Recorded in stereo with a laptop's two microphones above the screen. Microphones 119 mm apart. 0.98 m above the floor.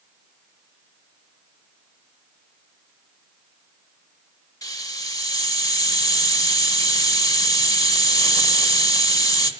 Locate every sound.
4.6 s a hiss: 30° left (ahead or behind), 1.5 m